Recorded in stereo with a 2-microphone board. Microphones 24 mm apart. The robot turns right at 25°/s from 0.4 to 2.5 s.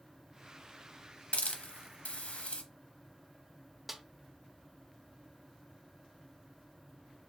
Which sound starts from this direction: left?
A hiss, at 1.3 s.